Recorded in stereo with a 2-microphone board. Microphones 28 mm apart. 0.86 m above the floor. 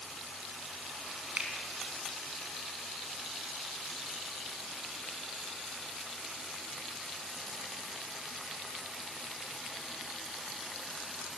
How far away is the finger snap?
About 6 m.